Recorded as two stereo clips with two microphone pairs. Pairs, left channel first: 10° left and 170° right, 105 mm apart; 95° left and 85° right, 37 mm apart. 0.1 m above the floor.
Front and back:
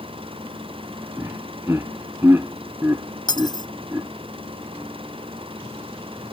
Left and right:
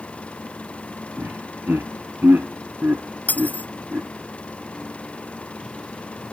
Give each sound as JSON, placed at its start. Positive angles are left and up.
{"t": 0.0, "sound": "an engine running", "azimuth_deg": 155}
{"t": 1.2, "sound": "laughter", "azimuth_deg": -105}
{"t": 3.3, "sound": "cutlery clinking", "azimuth_deg": 55}